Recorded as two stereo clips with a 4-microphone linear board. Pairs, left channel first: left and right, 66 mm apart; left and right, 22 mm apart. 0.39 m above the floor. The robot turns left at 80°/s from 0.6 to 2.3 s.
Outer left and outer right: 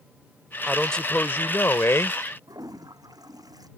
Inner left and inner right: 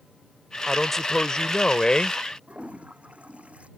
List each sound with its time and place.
0.7 s a man speaking: straight behind; by 2.2 s 60° left
2.5 s a toilet flushing: 75° right (ahead or behind)